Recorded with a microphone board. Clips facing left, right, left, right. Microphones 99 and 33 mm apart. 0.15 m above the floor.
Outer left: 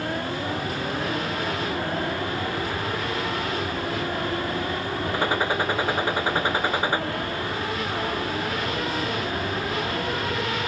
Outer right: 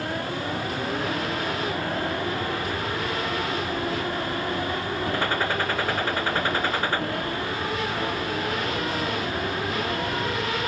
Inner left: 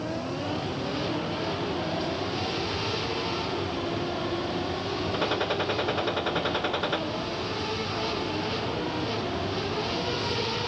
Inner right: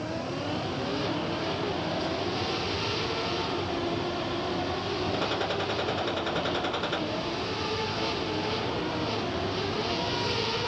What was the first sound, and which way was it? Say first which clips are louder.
A gunshot: outer left 3 dB, inner left 5 dB; 15° left (ahead or behind).